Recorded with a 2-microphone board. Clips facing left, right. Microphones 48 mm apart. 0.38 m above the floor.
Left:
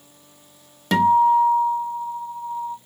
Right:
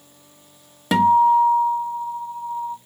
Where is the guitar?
10° right (ahead or behind), 0.8 m.